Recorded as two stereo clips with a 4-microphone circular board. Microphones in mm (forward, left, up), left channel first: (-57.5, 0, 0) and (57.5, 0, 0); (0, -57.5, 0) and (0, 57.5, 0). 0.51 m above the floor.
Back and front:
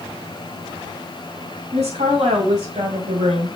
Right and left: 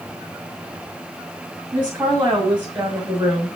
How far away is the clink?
I don't hear a clink.